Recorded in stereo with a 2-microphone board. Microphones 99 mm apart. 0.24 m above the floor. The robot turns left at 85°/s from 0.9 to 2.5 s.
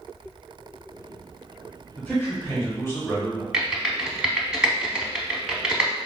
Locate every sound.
2.0 s a man speaking: 15° left (ahead or behind), 1.1 m; by 3.4 s 25° left (ahead or behind), 1.1 m
3.5 s typing on a keyboard: 10° right (ahead or behind), 0.6 m